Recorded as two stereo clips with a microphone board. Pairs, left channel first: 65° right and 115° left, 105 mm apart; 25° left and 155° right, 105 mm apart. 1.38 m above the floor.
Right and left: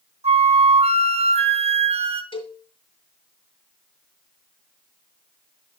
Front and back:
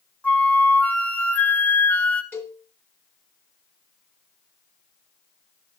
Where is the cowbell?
45° right, 2 m.